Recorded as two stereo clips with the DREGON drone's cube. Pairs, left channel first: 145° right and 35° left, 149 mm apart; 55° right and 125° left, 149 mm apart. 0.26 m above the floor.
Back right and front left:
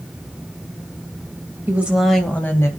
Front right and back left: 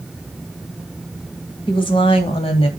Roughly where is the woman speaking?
Ahead right.